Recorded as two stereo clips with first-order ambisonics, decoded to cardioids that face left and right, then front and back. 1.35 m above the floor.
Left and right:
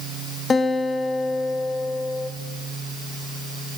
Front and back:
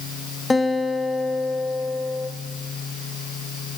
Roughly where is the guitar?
Ahead left.